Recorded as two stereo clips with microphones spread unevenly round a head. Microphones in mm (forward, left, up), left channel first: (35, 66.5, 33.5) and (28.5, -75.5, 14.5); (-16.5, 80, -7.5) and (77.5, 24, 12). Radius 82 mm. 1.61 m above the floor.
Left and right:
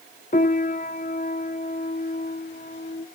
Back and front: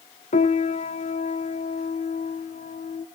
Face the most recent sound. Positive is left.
turn(degrees=135)